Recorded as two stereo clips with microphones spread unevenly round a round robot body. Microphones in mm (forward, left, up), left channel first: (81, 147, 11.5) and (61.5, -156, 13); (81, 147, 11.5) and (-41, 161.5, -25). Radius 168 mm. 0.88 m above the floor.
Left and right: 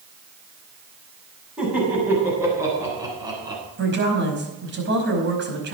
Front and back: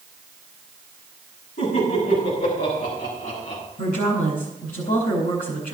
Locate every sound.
1.6 s laughter: 5° right, 7 m; by 3.6 s 20° right, 8 m
3.8 s a woman speaking: 40° right, 5 m